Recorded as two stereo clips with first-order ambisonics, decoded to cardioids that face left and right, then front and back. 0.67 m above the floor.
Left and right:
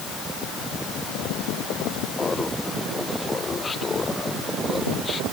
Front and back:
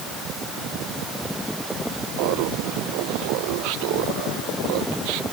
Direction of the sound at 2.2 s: 170° left.